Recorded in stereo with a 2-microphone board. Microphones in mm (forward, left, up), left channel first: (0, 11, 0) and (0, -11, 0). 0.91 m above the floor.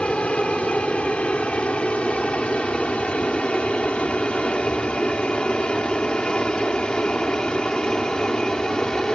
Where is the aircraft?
65° left (ahead or behind); by 9.2 s 35° left (ahead or behind).